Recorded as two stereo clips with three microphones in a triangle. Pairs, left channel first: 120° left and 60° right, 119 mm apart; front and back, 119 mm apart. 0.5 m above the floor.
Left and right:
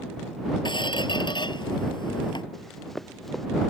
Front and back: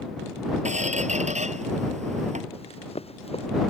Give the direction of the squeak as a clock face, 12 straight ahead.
6 o'clock.